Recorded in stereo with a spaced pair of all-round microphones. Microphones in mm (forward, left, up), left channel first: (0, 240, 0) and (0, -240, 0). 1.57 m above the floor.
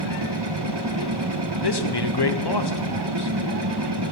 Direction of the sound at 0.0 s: 55° right (ahead or behind).